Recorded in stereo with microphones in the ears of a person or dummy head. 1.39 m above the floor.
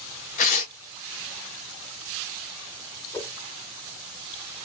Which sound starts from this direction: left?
Tearing paper, at 0.4 s.